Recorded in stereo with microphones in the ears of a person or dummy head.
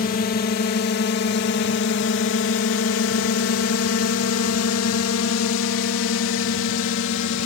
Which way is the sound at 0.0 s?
45° left (ahead or behind).